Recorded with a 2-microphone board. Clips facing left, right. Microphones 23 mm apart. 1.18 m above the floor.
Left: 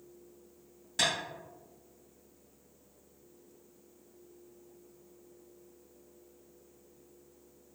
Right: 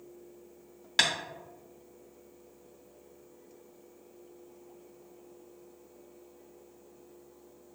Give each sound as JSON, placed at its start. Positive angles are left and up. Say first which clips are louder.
{"t": 1.0, "sound": "tapping", "louder": "right 4 dB", "side_deg": -65, "distance_m": 1.0}